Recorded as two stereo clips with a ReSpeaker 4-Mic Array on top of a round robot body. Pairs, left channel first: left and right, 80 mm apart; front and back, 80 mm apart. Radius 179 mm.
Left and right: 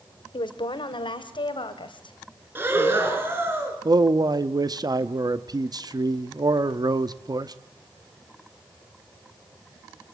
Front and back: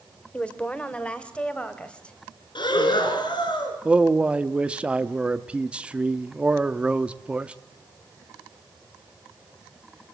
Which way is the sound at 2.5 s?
30° right.